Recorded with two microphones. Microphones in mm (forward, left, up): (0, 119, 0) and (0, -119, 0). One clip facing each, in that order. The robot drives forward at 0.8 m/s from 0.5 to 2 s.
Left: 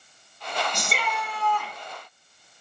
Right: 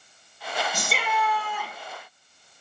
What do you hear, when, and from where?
0.7 s a shout: 5° right (ahead or behind), 3 m